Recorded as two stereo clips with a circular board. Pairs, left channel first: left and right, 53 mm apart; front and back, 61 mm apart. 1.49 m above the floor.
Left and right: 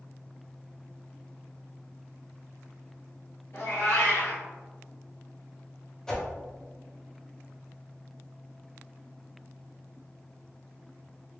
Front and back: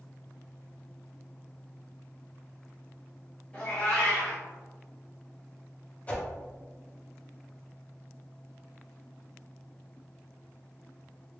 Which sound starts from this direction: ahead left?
A whoosh, at 6.1 s.